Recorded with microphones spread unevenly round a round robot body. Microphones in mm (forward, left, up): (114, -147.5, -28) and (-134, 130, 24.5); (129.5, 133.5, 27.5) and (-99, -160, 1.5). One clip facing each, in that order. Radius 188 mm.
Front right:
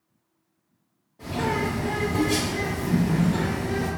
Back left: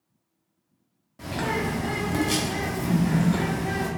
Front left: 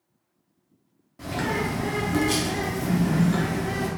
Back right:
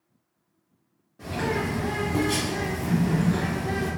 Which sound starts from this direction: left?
A bird, at 1.2 s.